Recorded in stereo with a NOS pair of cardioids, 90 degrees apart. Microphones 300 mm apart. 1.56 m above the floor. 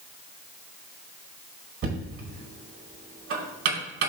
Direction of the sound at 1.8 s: 50° right.